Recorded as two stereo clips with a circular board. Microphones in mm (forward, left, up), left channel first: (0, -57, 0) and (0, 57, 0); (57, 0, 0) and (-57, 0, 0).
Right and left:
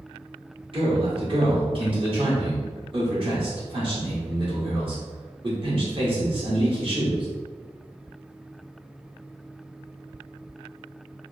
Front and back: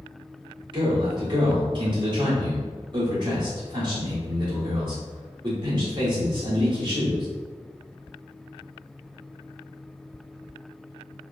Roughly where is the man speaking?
Behind left.